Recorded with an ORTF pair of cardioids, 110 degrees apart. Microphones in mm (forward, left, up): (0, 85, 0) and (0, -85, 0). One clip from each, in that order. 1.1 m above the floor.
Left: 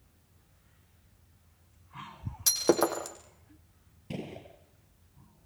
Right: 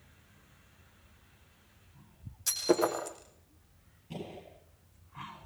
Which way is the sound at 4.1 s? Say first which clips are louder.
Left 2 dB; 70° left.